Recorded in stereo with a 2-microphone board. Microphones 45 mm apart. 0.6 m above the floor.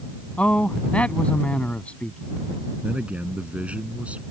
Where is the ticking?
No ticking in this recording.